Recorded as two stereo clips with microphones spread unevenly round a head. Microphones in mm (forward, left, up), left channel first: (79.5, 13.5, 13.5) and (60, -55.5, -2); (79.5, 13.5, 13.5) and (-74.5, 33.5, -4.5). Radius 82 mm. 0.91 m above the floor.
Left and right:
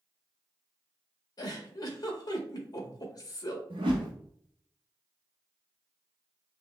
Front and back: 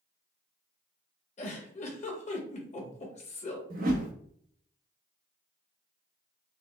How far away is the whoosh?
About 0.8 m.